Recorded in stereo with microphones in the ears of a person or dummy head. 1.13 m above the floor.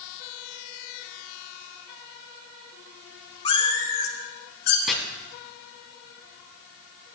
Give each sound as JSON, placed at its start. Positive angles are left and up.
{"t": 3.5, "sound": "a cat meowing", "side_deg": 30, "distance_m": 1.6}
{"t": 4.9, "sound": "chopping", "side_deg": 0, "distance_m": 2.5}